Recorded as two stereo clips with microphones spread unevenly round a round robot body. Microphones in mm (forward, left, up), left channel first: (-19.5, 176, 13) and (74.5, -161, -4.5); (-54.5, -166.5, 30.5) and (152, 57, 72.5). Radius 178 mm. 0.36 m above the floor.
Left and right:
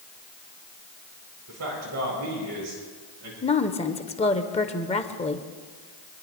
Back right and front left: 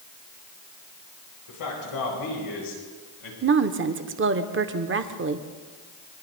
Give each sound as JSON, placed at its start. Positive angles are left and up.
{"t": 1.5, "sound": "a man speaking", "azimuth_deg": -120, "distance_m": 7.5}
{"t": 3.4, "sound": "a woman speaking", "azimuth_deg": 45, "distance_m": 0.9}